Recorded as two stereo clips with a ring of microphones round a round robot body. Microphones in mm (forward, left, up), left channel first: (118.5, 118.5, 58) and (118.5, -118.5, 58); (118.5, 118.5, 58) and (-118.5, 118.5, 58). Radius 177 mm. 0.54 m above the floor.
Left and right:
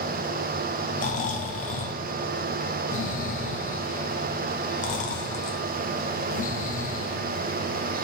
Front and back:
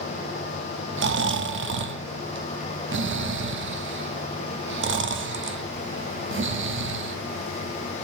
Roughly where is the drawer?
I don't hear a drawer.